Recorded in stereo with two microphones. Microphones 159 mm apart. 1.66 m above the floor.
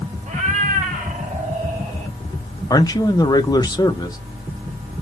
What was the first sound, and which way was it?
A cat meowing, 55° right (ahead or behind).